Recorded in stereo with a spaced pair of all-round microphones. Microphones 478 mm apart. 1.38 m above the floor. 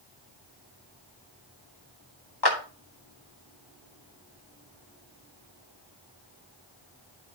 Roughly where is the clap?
Left.